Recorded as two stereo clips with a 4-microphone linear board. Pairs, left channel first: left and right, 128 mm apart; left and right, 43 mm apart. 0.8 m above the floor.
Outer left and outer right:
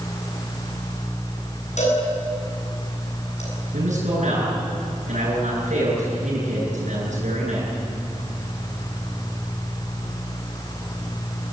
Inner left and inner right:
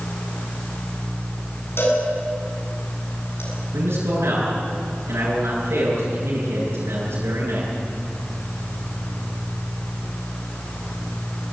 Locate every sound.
1.8 s a cowbell: 60° left (ahead or behind), 8.5 m
3.7 s a man speaking: 70° right (ahead or behind), 10 m